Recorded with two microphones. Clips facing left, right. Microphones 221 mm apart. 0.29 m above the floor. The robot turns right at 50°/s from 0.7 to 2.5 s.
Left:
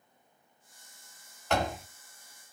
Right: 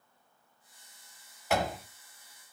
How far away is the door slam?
About 0.7 m.